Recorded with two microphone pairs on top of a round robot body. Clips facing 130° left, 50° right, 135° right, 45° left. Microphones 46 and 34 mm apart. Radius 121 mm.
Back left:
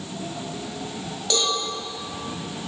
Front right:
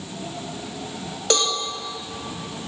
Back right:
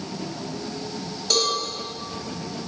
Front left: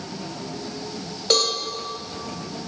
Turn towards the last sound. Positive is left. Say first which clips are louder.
# front right 2 dB, front left 2 dB
turn(degrees=-10)